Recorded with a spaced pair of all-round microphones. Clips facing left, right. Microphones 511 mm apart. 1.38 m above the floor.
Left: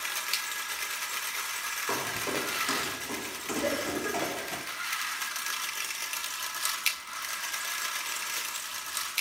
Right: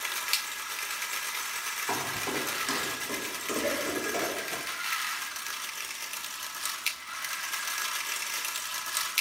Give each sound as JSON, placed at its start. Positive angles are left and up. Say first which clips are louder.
{"t": 1.9, "sound": "footsteps", "louder": "left 1 dB", "side_deg": -10, "distance_m": 3.0}
{"t": 3.6, "sound": "a cough", "louder": "left 1 dB", "side_deg": 65, "distance_m": 5.5}